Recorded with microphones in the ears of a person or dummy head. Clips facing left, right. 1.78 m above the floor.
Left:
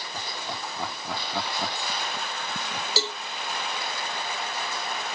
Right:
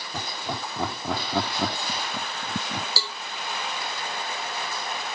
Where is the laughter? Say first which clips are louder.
Right 4 dB; 50° right (ahead or behind).